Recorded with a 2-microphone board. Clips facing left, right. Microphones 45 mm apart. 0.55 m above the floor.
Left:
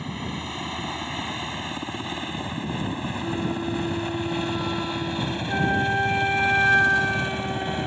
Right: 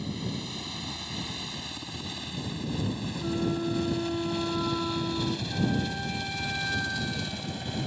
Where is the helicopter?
40° left (ahead or behind); by 7.9 s 35° left (ahead or behind).